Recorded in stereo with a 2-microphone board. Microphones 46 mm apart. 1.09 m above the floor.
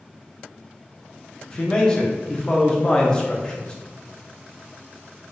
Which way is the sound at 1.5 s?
20° left (ahead or behind).